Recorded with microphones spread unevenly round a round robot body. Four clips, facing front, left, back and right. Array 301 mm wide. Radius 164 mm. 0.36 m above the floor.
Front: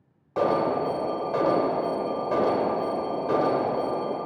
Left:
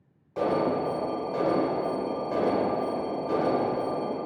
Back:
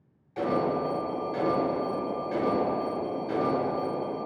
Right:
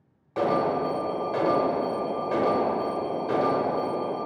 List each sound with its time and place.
0.4 s an alarm: 20° right, 1.0 m